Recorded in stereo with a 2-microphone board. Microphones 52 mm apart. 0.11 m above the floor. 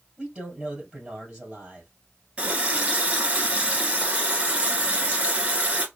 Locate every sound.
0.2 s a man speaking: 15° right (ahead or behind), 2 m
2.4 s a running tap: 25° right (ahead or behind), 1.0 m